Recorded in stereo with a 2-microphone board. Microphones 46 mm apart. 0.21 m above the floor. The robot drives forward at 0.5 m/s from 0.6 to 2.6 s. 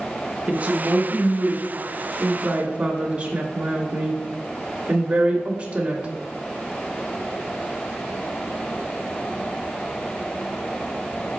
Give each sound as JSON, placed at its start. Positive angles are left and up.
{"t": 0.5, "sound": "a woman speaking", "side_deg": -35, "distance_m": 1.2}